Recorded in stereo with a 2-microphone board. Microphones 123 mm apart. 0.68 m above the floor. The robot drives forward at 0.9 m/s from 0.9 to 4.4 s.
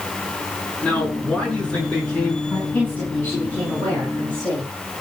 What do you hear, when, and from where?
0.8 s a man speaking: 10° left (ahead or behind), 7 m; by 2.4 s 5° left (ahead or behind), 8.5 m
2.5 s a woman speaking: 15° left (ahead or behind), 6 m; by 4.7 s 10° left (ahead or behind), 7.5 m